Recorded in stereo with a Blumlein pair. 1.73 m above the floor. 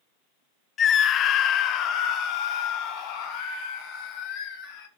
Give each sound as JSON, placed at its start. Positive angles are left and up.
{"t": 0.8, "sound": "a scream", "azimuth_deg": 25, "distance_m": 0.7}